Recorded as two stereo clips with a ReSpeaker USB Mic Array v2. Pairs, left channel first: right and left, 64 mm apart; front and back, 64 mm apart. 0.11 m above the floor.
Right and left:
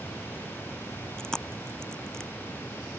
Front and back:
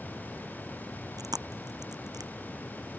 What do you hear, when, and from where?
1.2 s chewing: 170° right